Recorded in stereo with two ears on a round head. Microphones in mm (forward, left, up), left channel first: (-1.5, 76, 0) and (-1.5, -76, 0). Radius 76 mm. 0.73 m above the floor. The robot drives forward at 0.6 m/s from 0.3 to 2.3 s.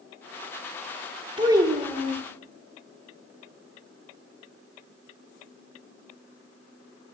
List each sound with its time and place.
1.4 s a child speaking: 25° right (ahead or behind), 0.7 m; by 2.2 s 15° right (ahead or behind), 1.2 m